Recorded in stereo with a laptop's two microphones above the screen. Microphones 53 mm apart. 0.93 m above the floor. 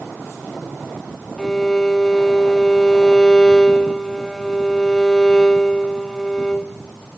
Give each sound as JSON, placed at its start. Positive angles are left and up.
{"t": 1.4, "sound": "a violin", "side_deg": 10, "distance_m": 0.9}